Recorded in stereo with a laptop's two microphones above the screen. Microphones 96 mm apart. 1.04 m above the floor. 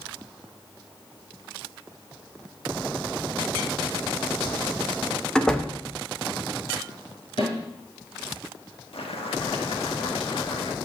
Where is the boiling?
75° left (ahead or behind), 1.8 m.